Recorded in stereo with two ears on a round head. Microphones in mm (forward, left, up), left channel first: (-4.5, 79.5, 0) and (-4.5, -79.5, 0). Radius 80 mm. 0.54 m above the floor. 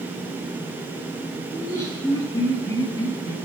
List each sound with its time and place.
1.5 s laughter: 20° left (ahead or behind), 7.5 m